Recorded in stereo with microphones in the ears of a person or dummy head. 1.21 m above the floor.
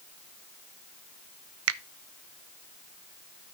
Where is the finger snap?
75° right (ahead or behind), 0.7 m.